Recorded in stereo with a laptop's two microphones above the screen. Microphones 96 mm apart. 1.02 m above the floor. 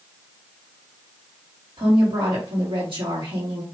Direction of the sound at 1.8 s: 70° right (ahead or behind).